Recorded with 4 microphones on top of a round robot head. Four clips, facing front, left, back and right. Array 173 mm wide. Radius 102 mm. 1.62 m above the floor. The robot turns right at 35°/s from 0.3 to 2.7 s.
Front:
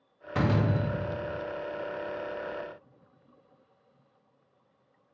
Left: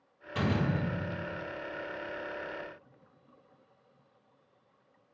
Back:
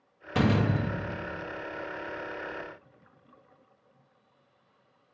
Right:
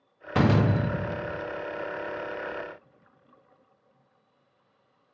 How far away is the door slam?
About 0.7 m.